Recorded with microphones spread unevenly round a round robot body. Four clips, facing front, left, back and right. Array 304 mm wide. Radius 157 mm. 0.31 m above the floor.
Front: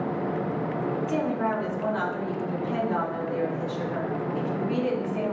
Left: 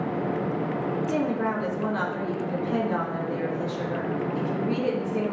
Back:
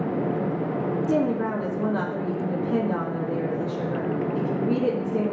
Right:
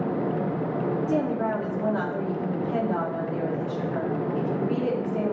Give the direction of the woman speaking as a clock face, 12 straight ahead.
6 o'clock.